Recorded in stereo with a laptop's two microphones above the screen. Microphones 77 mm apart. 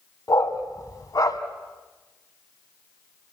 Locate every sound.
0.3 s a dog barking: 50° left (ahead or behind), 1.9 m